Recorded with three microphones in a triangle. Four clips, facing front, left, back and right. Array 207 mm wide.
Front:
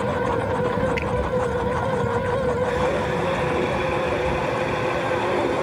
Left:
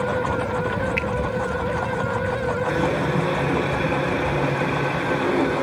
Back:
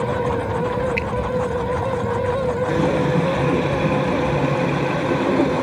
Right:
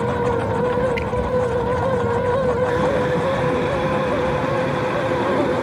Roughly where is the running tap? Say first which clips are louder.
Right 3 dB, back 3 dB; behind.